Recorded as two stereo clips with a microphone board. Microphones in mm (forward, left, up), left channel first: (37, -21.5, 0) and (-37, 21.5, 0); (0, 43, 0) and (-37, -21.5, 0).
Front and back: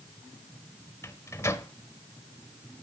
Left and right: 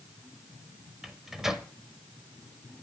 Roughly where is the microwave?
Ahead right.